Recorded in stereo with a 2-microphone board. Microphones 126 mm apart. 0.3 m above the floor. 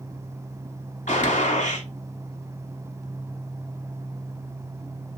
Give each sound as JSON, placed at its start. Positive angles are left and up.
{"t": 1.1, "sound": "a gunshot", "side_deg": 75, "distance_m": 0.8}